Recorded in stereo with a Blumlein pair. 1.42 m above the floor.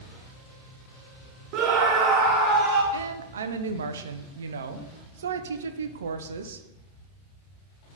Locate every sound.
1.5 s a scream: 40° right, 0.5 m; by 2.8 s 15° right, 1.3 m
2.9 s a woman speaking: 65° right, 0.6 m